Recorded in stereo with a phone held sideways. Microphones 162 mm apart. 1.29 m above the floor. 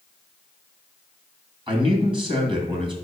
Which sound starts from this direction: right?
A man speaking, at 1.7 s.